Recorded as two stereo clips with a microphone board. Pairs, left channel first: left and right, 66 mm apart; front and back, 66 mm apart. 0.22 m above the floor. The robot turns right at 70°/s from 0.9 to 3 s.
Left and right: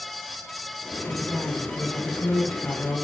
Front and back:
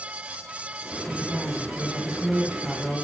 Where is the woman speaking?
15° right, 1.2 m; by 3.0 s 120° left, 1.2 m.